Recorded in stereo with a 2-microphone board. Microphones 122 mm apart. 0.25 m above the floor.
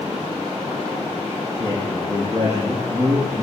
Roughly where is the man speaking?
Centre.